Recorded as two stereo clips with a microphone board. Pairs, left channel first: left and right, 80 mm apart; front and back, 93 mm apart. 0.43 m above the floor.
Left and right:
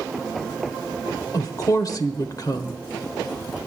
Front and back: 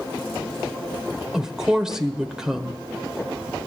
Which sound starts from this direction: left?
A woman speaking, at 1.3 s.